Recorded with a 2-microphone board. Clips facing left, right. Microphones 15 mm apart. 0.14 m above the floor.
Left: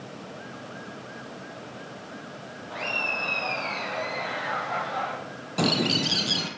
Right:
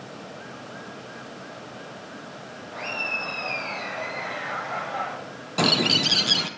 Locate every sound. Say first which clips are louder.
2.7 s laughter: left 1 dB; 70° left (ahead or behind), 4 m; by 5.2 s 40° left (ahead or behind), 5 m
5.6 s a bird: right 4 dB; 25° right (ahead or behind), 0.7 m